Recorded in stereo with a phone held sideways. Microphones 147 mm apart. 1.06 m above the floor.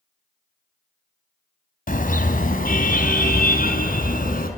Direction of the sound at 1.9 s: 70° left (ahead or behind).